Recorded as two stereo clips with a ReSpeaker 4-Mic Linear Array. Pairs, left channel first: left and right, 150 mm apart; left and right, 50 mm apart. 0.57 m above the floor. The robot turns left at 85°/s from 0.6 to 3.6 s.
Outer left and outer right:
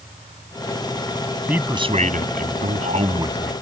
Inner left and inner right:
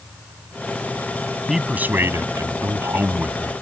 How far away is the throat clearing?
No throat clearing in this recording.